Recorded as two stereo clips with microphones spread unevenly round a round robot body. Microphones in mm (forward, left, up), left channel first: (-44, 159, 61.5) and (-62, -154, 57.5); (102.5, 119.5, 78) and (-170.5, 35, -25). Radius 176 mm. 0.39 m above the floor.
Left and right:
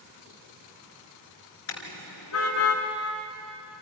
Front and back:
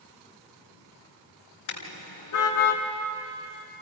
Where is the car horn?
35° left, 2.5 m; by 2.8 s 40° left, 2 m.